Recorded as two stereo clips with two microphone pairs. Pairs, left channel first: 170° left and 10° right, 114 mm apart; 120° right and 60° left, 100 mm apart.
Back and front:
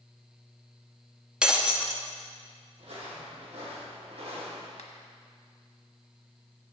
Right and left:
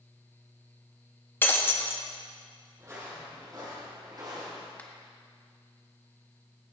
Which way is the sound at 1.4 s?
80° right.